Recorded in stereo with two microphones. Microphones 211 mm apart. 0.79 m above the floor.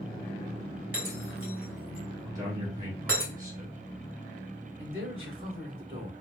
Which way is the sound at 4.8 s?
65° right (ahead or behind).